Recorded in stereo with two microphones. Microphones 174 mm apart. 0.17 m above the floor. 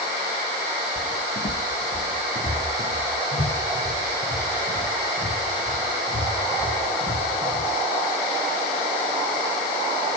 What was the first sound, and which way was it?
Footsteps, 55° left (ahead or behind).